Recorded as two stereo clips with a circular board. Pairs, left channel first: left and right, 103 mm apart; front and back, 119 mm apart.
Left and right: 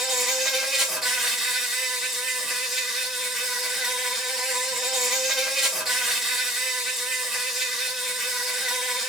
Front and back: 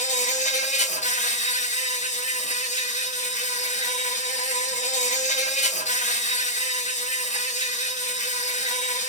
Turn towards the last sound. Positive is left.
turn(degrees=-5)